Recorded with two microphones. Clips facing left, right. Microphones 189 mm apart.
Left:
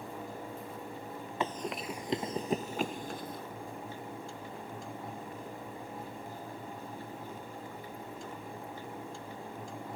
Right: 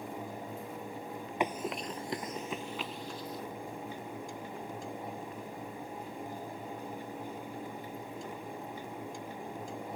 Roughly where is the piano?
I don't hear a piano.